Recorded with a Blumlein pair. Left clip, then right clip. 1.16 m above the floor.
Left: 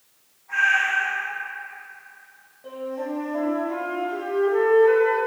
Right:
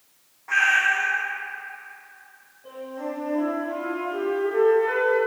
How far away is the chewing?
I don't hear chewing.